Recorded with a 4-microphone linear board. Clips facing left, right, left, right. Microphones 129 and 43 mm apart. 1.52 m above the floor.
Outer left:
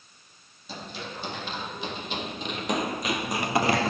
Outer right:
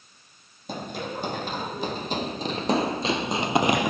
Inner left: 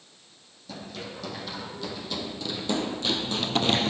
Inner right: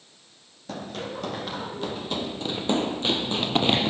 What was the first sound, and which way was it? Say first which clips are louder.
Running footsteps: outer right 6 dB, inner right 5 dB; 50° right (ahead or behind).